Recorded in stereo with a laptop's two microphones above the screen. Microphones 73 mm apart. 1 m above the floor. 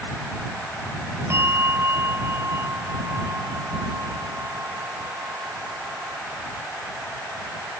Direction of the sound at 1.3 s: 35° right (ahead or behind).